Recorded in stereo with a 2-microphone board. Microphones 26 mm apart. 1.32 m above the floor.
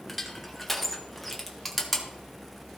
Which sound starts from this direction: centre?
Crushing, at 0.1 s.